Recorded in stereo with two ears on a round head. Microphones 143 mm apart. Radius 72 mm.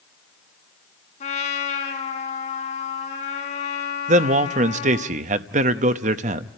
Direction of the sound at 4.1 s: 50° right (ahead or behind).